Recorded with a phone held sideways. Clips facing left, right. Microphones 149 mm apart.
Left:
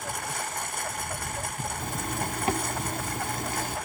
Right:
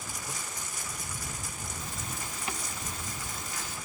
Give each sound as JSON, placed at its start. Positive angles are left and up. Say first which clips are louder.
{"t": 0.0, "sound": "a lawn mower", "louder": "left 7 dB", "side_deg": 65}
{"t": 1.8, "sound": "a zipper", "louder": "left 9 dB", "side_deg": 60}